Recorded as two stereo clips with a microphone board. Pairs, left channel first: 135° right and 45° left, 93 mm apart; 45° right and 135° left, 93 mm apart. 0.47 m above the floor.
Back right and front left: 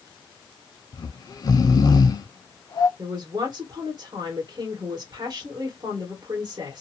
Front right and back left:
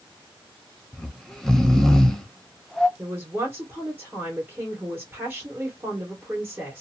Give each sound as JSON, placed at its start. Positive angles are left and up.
{"t": 0.9, "sound": "snoring", "azimuth_deg": -130, "distance_m": 0.7}
{"t": 3.0, "sound": "a man speaking", "azimuth_deg": 65, "distance_m": 1.2}